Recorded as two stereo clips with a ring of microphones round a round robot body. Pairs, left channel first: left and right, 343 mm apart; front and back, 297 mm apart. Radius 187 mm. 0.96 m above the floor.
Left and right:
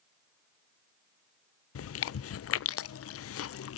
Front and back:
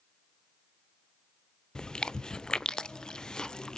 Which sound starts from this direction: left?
Chewing, at 1.8 s.